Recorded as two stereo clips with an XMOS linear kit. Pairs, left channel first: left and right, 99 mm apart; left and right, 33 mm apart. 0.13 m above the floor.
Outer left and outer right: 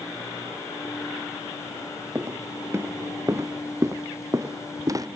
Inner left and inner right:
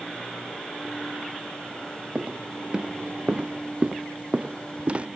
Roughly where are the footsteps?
Right.